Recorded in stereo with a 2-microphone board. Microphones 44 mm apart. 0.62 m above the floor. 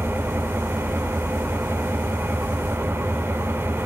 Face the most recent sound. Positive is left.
turn(degrees=-60)  # may be behind; listen again after turning